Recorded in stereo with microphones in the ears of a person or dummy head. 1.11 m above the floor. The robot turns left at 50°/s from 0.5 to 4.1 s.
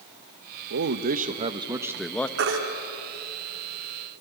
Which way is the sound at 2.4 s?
65° right (ahead or behind).